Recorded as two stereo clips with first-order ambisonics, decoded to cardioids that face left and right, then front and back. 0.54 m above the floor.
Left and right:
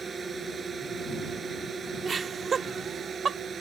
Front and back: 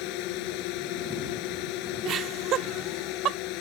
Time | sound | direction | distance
0.0 | a drone | 20° right | ?
2.0 | laughter | 150° right | ?